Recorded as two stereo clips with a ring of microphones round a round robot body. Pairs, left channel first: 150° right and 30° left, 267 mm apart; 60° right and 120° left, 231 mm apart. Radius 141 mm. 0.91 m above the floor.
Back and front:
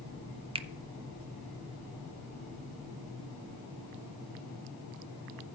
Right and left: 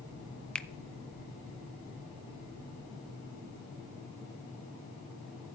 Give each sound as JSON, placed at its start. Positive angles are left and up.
{"t": 0.6, "sound": "a finger snap", "azimuth_deg": 20, "distance_m": 0.6}